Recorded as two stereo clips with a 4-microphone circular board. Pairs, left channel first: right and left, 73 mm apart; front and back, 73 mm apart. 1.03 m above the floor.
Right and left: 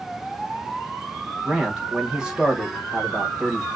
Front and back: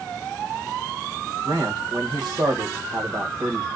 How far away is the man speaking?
About 1.5 m.